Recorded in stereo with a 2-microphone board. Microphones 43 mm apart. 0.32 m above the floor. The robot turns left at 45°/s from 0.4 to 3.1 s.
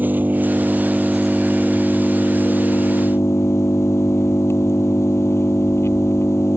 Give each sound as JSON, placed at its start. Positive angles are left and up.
{"t": 0.0, "sound": "an engine running", "azimuth_deg": -140}